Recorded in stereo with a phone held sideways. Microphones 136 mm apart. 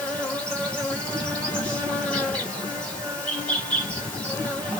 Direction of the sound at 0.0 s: 5° left (ahead or behind).